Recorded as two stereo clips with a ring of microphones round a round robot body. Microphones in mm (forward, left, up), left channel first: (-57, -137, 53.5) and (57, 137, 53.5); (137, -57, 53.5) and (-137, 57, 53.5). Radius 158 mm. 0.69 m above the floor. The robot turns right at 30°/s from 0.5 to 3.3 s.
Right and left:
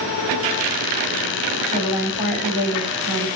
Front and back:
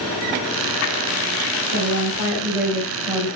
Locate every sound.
1.7 s a woman speaking: 175° left, 2.5 m; by 3.3 s 135° right, 2.5 m